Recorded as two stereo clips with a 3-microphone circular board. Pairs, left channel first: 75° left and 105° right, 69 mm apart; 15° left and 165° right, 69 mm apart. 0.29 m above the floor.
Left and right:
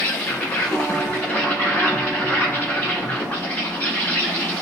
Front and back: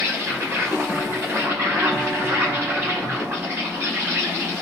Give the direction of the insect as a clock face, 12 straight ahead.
7 o'clock.